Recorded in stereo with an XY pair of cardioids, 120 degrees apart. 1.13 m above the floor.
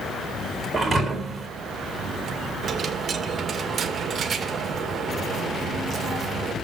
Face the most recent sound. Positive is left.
turn(degrees=-35)